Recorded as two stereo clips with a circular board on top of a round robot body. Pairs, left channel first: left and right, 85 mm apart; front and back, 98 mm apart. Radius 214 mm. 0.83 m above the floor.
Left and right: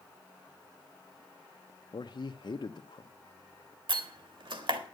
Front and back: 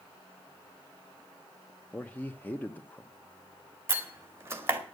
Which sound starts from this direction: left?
A man speaking, at 1.9 s.